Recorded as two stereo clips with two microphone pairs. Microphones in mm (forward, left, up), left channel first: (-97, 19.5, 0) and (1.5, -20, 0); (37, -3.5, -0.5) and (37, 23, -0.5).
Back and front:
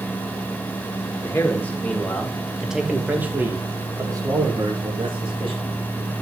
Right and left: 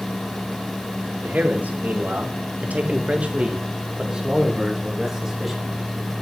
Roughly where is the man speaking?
Left.